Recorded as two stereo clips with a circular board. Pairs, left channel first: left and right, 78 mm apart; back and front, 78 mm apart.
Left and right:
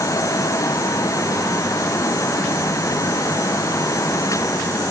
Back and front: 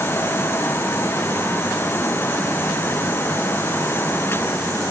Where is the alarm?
No alarm in this recording.